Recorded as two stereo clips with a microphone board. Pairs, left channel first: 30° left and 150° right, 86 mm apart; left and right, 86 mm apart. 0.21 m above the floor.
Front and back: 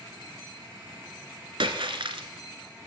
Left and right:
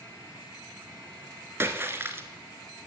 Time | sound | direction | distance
1.6 | a splash | 150° right | 0.8 m